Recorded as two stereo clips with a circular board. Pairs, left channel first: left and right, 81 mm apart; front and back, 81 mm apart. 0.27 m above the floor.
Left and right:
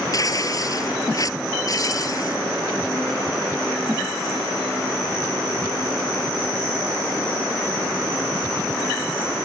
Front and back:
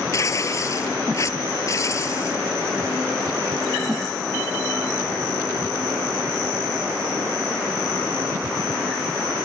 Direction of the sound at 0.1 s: 50° left.